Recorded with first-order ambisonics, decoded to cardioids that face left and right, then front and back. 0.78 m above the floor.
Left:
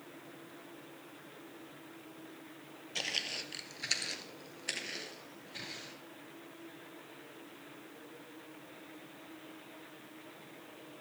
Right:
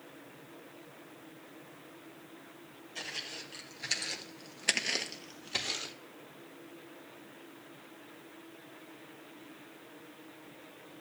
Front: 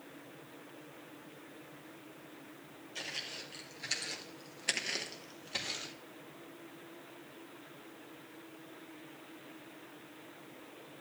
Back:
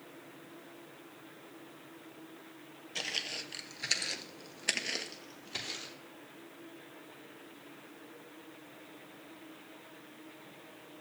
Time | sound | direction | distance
3.0 | footsteps | 125° left | 1.1 m